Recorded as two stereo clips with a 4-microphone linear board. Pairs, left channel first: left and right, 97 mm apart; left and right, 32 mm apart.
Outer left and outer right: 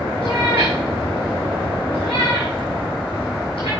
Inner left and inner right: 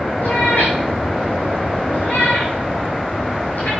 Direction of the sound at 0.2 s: 70° left (ahead or behind).